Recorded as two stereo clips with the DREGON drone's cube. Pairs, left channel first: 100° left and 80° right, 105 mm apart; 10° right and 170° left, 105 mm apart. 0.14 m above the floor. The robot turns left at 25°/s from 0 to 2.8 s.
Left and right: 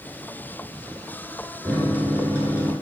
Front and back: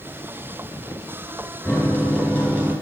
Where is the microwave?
35° right, 1.0 m; by 2.7 s 60° right, 1.0 m.